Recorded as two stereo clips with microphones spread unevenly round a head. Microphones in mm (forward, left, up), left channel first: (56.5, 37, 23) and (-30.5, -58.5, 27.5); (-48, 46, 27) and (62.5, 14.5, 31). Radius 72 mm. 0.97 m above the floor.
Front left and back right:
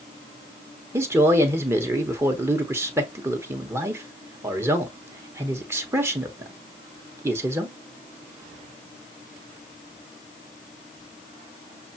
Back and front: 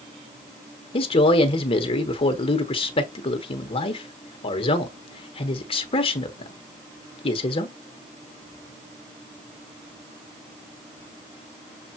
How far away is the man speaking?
About 1.1 m.